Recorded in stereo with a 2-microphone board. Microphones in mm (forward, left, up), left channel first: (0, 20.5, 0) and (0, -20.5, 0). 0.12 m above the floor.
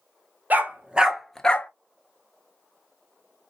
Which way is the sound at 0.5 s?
50° right (ahead or behind).